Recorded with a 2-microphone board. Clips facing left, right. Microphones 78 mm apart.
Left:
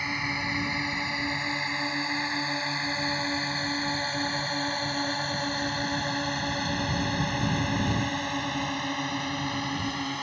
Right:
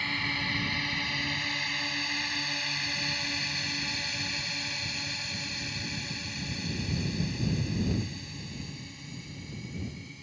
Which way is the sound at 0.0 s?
20° left (ahead or behind).